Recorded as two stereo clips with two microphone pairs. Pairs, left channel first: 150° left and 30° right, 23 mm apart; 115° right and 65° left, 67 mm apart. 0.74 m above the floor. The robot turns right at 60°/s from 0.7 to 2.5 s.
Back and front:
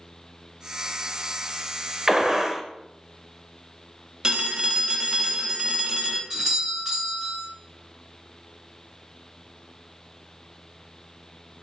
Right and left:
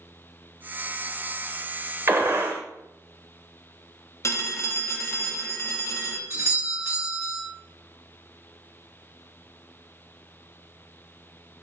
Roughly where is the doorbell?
Ahead left.